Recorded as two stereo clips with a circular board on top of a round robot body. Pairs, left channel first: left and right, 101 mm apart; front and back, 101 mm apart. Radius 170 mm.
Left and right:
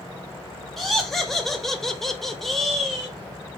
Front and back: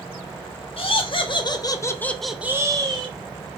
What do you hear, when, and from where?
0.8 s laughter: 5° left, 1.1 m; by 3.1 s straight behind, 0.8 m